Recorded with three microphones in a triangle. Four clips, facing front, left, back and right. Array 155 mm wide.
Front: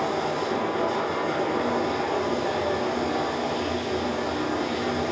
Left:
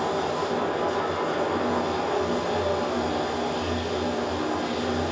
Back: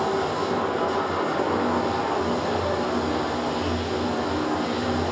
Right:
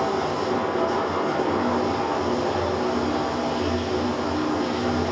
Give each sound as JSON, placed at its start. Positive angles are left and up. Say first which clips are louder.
{"t": 0.0, "sound": "running water", "louder": "right 2 dB, back 2 dB", "azimuth_deg": -115, "distance_m": 5.5}